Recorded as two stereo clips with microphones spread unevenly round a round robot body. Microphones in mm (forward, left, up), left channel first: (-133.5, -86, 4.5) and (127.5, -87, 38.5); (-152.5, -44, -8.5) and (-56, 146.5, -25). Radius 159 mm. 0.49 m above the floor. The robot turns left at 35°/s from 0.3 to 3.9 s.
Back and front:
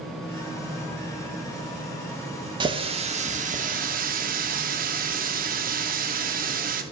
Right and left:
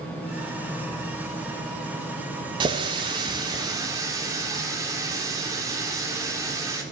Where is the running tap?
65° left, 0.6 m; by 6.8 s 20° left, 0.6 m.